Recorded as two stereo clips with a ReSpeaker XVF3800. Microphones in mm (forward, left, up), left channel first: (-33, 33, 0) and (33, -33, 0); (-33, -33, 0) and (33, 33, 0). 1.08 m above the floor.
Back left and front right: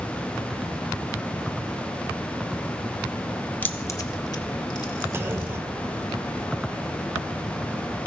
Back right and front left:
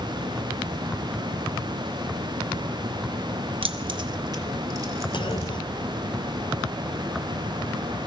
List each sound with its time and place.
3.6 s keys jangling: 65° left, 0.8 m; by 5.5 s 105° left, 2 m
5.1 s a clunk: 110° right, 0.7 m